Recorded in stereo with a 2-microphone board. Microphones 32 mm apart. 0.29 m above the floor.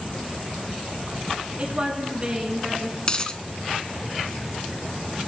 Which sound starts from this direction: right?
A woman speaking, at 1.6 s.